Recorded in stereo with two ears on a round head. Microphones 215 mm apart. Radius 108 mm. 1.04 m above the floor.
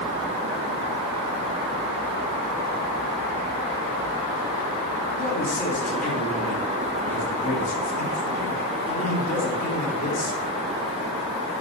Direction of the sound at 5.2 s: 35° left (ahead or behind).